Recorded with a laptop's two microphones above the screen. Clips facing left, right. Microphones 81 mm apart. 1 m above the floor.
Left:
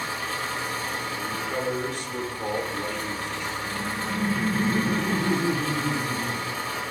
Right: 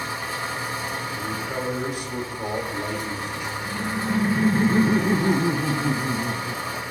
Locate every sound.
0.0 s an engine running: 15° right (ahead or behind), 3 m
1.1 s a man speaking: 15° right (ahead or behind), 2.5 m
3.6 s laughter: 35° right (ahead or behind), 0.6 m